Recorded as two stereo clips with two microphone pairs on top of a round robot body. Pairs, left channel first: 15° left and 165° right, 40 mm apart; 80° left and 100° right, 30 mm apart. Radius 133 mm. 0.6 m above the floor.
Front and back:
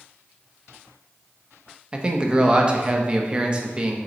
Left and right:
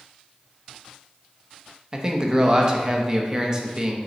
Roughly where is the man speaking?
Behind.